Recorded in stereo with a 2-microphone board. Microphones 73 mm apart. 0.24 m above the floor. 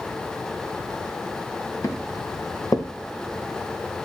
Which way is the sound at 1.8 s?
45° left (ahead or behind).